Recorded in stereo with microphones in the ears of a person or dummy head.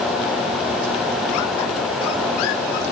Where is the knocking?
No knocking in this recording.